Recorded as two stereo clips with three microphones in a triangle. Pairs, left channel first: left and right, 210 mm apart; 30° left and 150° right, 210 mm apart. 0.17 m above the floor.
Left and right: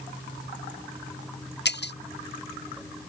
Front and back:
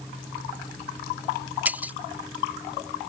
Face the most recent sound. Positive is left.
turn(degrees=130)